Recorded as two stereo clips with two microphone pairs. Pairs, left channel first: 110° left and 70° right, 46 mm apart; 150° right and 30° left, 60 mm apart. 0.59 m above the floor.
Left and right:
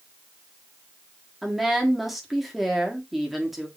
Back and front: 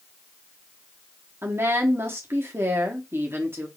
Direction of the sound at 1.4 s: 15° left.